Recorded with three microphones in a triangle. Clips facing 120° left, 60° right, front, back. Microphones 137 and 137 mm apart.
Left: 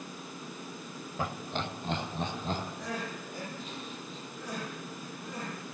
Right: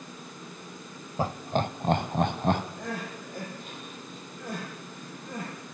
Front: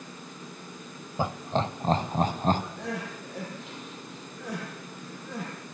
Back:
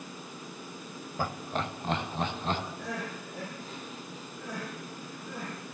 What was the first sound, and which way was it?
Laughter, 50° right.